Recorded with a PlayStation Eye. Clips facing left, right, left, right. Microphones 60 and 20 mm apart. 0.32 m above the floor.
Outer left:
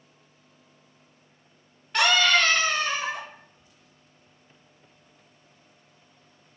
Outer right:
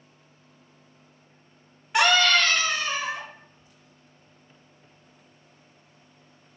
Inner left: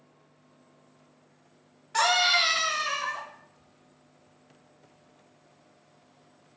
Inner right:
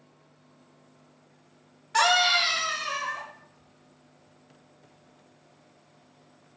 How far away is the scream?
About 1.1 m.